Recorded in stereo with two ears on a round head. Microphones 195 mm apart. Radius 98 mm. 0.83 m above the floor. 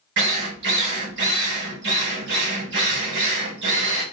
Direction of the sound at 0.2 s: 55° right (ahead or behind).